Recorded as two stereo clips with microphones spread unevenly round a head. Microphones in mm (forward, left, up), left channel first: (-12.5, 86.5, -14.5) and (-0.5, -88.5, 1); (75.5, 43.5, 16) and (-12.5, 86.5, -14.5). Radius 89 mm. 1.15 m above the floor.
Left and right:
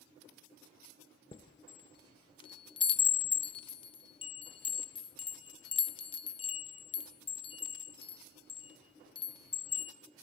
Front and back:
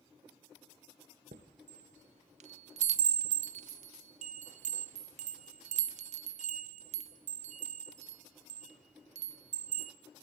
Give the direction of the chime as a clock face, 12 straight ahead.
7 o'clock.